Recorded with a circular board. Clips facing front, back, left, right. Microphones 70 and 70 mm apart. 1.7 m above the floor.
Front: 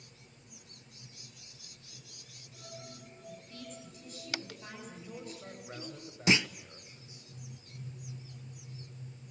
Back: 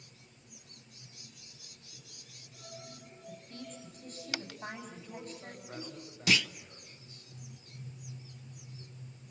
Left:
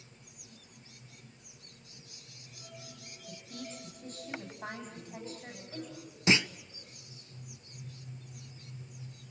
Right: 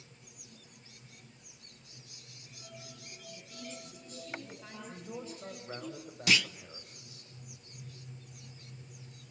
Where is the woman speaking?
130° left, 9.5 m.